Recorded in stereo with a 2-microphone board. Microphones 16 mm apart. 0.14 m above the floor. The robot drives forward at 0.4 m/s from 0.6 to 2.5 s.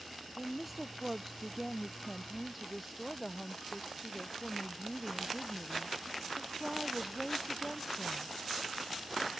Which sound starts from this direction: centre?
A woman speaking, at 0.4 s.